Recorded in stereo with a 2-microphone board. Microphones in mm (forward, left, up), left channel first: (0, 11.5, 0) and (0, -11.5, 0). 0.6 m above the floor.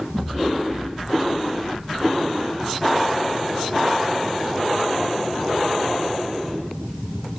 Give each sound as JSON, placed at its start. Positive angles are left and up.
{"t": 0.1, "sound": "an explosion", "side_deg": -5, "distance_m": 6.0}